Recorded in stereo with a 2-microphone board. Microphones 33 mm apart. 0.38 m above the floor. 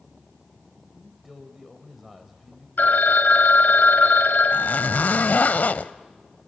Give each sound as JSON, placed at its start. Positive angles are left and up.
{"t": 0.9, "sound": "a man speaking", "side_deg": -5, "distance_m": 2.0}
{"t": 2.8, "sound": "a phone ringing", "side_deg": 65, "distance_m": 1.2}
{"t": 4.5, "sound": "a zipper", "side_deg": 60, "distance_m": 0.6}